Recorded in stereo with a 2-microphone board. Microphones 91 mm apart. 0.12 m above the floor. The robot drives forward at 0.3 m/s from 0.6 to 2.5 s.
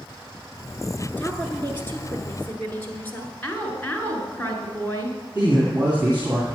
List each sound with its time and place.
1.1 s a woman speaking: 20° left (ahead or behind), 1.7 m; by 3.3 s 15° left (ahead or behind), 1.9 m
3.4 s a woman speaking: 20° left (ahead or behind), 1.6 m
5.3 s a man speaking: 20° right (ahead or behind), 2.5 m